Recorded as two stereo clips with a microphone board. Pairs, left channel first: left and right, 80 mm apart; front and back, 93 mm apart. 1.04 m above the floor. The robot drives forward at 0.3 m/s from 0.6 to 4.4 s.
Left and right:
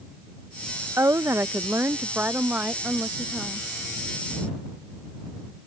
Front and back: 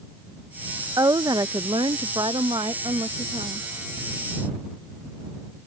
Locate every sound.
1.0 s a woman speaking: 140° right; by 3.7 s 160° right